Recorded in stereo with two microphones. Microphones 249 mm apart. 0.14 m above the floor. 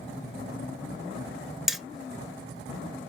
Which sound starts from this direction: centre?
Hammering, at 1.7 s.